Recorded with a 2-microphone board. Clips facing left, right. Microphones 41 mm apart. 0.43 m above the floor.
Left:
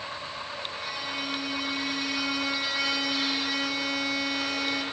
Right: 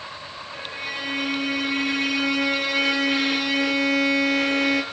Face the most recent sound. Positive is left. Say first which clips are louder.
# right 7 dB
turn(degrees=-55)  # may be behind; listen again after turning